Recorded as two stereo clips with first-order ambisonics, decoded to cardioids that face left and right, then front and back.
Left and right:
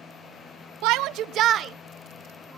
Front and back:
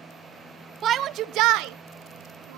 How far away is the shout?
About 0.8 m.